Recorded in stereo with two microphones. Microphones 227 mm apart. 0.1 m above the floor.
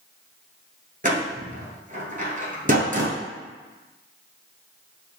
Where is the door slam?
35° right (ahead or behind), 1.1 m.